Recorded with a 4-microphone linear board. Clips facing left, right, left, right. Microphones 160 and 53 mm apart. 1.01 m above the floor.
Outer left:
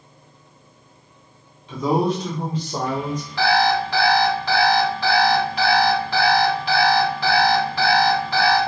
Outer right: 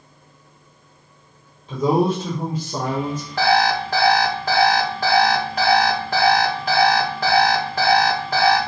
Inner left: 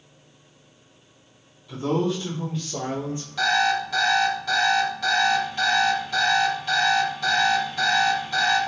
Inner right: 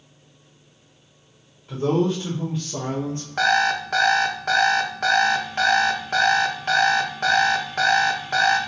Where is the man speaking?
35° right (ahead or behind), 1.2 m; by 3.3 s 20° left (ahead or behind), 0.9 m.